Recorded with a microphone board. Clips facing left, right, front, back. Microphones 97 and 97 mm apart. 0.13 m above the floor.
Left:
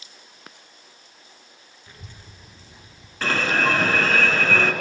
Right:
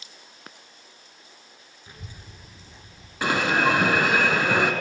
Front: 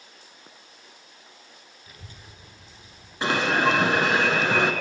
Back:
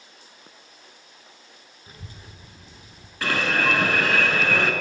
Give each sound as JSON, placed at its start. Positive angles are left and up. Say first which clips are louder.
{"t": 1.9, "sound": "a child speaking", "louder": "right 1 dB, back 4 dB", "azimuth_deg": -150, "distance_m": 1.2}
{"t": 3.2, "sound": "an alarm", "louder": "right 1 dB, front 2 dB", "azimuth_deg": -35, "distance_m": 0.8}